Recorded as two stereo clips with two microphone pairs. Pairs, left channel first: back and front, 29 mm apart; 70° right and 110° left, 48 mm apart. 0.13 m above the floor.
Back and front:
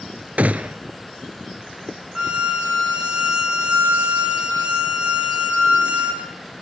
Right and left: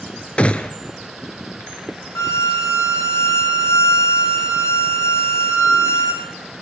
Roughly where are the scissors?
No scissors in this recording.